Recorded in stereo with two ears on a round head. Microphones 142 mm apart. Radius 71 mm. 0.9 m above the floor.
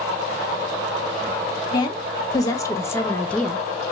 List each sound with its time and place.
1.7 s a woman speaking: 25° left (ahead or behind), 1.2 m; by 3.7 s 5° right (ahead or behind), 0.5 m